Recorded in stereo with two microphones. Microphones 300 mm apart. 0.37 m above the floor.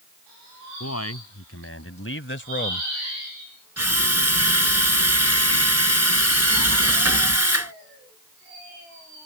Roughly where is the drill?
Right.